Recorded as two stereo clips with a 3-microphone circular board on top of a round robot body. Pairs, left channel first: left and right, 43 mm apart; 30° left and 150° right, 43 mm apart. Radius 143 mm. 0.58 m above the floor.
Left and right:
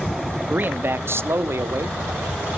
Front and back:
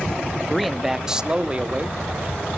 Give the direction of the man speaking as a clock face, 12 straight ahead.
2 o'clock.